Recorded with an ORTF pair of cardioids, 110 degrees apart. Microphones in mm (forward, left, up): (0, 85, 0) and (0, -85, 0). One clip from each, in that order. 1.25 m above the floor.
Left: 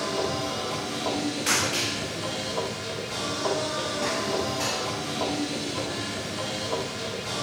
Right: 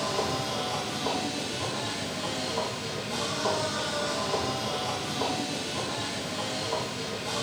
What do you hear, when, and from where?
0.0 s a machine running: 10° left, 2.5 m